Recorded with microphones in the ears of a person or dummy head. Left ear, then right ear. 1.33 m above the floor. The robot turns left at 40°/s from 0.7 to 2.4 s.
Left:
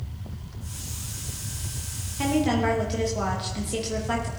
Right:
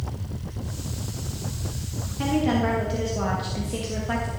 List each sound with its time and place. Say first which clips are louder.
2.2 s a woman speaking: even; 25° left (ahead or behind), 1.6 m; by 4.3 s 15° left (ahead or behind), 1.6 m